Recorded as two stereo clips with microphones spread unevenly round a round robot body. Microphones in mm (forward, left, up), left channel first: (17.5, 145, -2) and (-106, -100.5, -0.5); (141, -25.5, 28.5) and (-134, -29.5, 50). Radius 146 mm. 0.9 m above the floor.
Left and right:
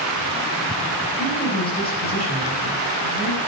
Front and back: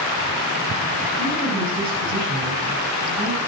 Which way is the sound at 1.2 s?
120° left.